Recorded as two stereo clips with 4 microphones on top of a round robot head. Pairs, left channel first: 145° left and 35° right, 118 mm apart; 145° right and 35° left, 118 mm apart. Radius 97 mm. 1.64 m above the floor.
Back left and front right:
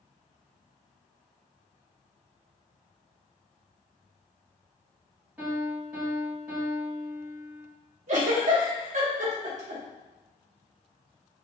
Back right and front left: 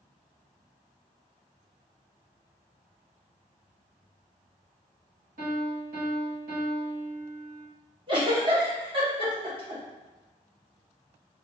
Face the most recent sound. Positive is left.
turn(degrees=-15)